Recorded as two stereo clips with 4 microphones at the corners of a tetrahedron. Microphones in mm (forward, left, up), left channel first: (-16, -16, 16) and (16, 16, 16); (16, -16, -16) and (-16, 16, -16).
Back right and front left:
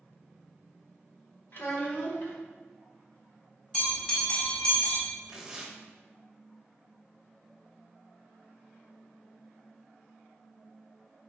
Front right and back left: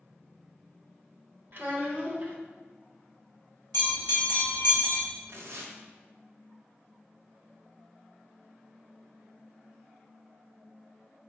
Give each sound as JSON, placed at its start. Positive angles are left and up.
{"t": 1.5, "sound": "a child speaking", "azimuth_deg": 180, "distance_m": 0.9}
{"t": 3.7, "sound": "a bell", "azimuth_deg": -70, "distance_m": 1.2}
{"t": 5.3, "sound": "tearing paper", "azimuth_deg": 125, "distance_m": 0.6}